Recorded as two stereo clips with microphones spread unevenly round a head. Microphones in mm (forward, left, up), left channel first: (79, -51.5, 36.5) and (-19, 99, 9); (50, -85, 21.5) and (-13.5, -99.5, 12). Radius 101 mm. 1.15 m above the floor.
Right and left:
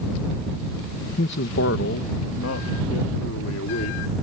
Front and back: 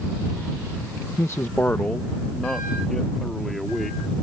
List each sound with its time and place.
1.2 s a man speaking: 35° right; by 4.1 s 75° right